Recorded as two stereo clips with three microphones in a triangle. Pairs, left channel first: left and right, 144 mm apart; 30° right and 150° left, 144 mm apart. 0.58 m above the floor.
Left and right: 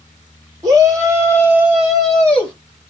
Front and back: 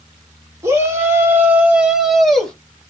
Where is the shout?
145° right, 1.9 m; by 2.5 s 40° left, 1.3 m.